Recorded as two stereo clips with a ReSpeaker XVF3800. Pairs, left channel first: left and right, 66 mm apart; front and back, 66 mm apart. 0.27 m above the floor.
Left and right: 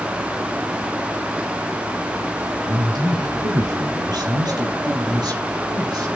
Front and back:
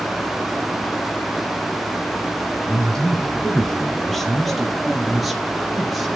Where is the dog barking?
I don't hear a dog barking.